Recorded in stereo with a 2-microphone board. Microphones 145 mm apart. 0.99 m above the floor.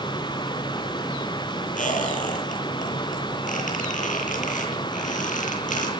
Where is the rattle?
No rattle in this recording.